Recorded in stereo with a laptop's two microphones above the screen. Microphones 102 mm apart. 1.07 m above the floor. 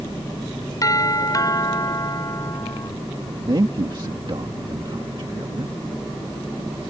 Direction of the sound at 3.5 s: 50° right (ahead or behind).